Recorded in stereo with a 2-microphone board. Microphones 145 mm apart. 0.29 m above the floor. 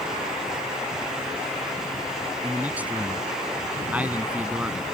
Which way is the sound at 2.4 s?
10° right (ahead or behind).